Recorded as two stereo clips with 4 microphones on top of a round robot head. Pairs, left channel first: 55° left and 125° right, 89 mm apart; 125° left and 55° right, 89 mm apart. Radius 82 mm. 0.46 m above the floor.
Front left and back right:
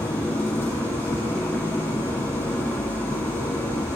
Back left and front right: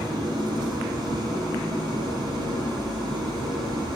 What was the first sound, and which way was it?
An engine running, 10° right.